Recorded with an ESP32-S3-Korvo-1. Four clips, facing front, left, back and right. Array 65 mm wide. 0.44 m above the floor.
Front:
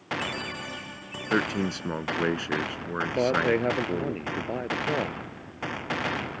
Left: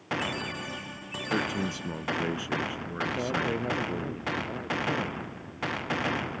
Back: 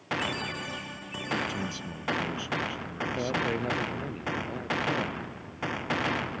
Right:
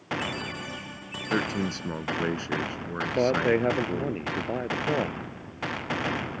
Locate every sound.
1.3 s a man speaking: 20° right
3.1 s a man speaking: 55° right